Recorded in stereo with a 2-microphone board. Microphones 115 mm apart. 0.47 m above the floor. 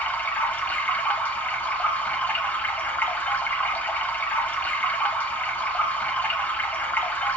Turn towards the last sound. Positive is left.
turn(degrees=15)  # may be behind; listen again after turning